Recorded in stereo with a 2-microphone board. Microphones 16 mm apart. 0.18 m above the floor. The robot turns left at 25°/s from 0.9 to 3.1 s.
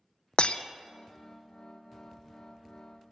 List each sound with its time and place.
0.4 s breaking glass: 80° left, 0.6 m